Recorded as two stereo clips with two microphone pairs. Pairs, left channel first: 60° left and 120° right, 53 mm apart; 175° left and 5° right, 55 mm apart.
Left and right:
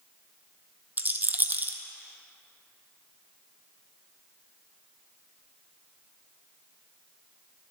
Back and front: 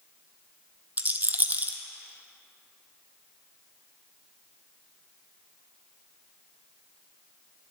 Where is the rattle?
65° right, 0.8 m.